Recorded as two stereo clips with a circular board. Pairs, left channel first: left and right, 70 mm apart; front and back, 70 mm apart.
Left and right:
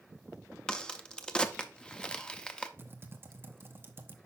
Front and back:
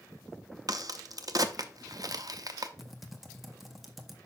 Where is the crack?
165° left, 0.6 m.